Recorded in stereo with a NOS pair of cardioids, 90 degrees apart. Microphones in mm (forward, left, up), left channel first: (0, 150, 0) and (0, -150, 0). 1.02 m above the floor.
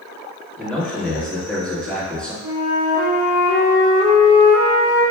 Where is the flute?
5° right, 0.8 m.